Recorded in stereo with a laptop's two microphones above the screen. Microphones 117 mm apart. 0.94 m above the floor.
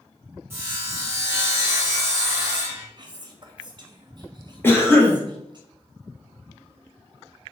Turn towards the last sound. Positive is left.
turn(degrees=20)  # may be behind; listen again after turning